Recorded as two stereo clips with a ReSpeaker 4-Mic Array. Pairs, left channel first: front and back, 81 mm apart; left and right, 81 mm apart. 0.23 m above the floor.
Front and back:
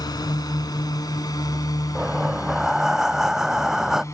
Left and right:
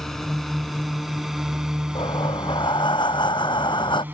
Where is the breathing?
95° left.